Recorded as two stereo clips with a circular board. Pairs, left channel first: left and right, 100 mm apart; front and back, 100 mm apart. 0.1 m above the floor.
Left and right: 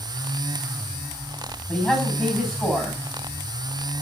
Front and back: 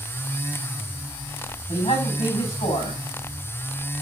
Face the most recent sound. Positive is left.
turn(degrees=0)